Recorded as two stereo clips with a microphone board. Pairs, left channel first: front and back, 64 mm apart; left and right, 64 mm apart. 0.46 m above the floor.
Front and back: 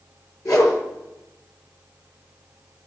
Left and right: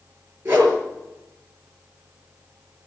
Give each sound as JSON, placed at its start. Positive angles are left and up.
{"t": 0.5, "sound": "a whoosh", "azimuth_deg": -25, "distance_m": 5.0}